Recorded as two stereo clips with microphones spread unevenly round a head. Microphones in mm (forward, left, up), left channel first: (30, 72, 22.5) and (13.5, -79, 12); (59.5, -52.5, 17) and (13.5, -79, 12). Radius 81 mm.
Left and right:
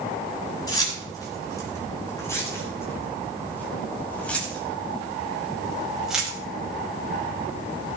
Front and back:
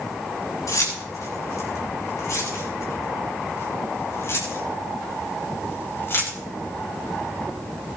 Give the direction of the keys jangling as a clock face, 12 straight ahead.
11 o'clock.